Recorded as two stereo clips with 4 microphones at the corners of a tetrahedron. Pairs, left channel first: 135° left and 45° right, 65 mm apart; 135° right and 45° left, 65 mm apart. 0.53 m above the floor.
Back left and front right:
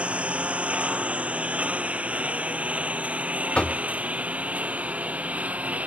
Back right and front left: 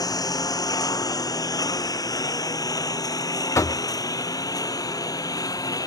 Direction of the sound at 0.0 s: 115° right.